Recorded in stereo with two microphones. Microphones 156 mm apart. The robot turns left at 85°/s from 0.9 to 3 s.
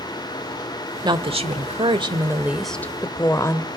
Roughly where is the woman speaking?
Ahead right.